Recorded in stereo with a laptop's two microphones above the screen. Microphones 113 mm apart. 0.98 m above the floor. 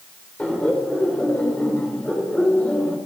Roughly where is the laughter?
Centre.